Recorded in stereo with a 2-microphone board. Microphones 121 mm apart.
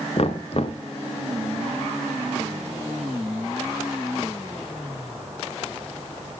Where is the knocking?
55° left (ahead or behind), 1.4 m.